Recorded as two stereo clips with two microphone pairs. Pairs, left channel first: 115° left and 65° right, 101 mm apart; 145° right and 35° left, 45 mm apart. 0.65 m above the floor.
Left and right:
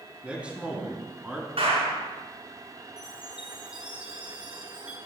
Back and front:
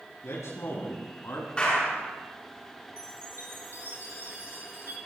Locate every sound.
0.2 s a man speaking: 140° right, 5.5 m; by 1.5 s 145° right, 4.5 m
1.6 s a clap: 80° right, 6.5 m
3.0 s a chime: 15° left, 4 m